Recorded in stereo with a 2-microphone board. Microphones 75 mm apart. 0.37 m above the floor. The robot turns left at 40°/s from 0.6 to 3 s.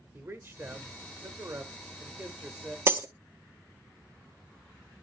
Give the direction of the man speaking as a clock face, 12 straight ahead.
2 o'clock.